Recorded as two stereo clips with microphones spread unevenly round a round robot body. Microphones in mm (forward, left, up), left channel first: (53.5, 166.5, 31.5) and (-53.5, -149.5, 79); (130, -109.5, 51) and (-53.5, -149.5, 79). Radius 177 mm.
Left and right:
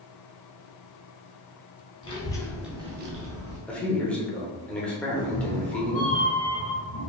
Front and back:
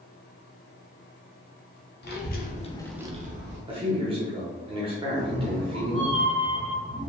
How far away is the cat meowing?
About 0.5 m.